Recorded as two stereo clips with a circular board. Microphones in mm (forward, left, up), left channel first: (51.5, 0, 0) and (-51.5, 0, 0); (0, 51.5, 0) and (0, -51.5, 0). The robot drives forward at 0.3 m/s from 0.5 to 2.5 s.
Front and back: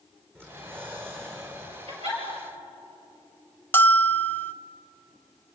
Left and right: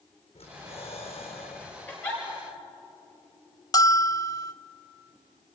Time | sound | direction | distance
0.3 | breathing | 110° left | 4 m
1.9 | a giggle | 165° left | 6 m
3.7 | a bell | 60° left | 0.6 m